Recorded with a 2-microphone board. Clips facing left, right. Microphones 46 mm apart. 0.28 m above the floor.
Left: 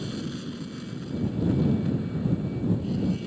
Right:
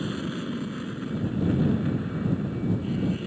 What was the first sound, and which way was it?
An aircraft, 30° right (ahead or behind).